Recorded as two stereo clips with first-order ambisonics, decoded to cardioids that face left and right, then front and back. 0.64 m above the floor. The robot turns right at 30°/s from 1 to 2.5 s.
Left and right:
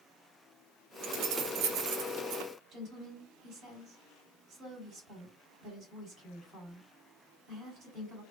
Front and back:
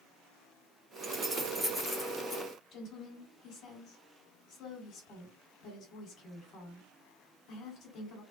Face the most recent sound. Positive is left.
turn(degrees=-35)